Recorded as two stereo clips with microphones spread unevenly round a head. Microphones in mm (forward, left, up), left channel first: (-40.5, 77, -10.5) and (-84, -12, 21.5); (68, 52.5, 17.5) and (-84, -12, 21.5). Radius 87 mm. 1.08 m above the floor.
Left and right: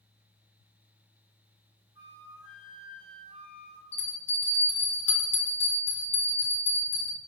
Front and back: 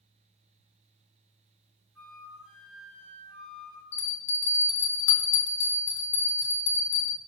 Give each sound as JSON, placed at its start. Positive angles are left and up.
{"t": 1.9, "sound": "a flute", "azimuth_deg": -70, "distance_m": 1.3}
{"t": 3.9, "sound": "a bell", "azimuth_deg": 40, "distance_m": 1.1}